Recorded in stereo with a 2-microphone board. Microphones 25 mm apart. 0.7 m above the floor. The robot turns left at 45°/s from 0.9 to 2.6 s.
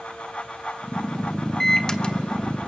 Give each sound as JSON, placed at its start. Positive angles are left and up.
{"t": 1.6, "sound": "a microwave", "side_deg": 15, "distance_m": 1.0}